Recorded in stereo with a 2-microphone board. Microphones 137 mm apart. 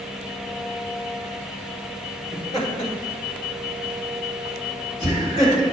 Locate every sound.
2.3 s laughter: 35° left (ahead or behind), 1.9 m; by 5.6 s 50° left (ahead or behind), 3.5 m